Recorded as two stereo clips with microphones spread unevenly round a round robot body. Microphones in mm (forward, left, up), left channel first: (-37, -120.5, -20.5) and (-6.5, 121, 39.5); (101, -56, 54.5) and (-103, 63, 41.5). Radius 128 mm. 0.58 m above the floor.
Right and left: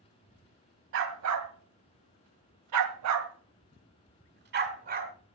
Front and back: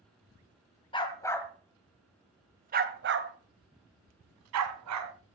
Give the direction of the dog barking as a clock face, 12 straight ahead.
11 o'clock.